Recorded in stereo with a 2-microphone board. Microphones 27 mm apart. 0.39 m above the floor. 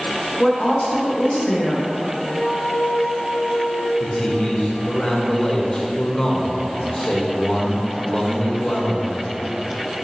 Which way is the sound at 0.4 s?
20° left (ahead or behind).